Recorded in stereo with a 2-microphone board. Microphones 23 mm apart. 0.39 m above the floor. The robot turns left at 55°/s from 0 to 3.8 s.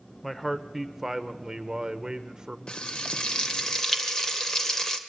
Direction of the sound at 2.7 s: 90° left.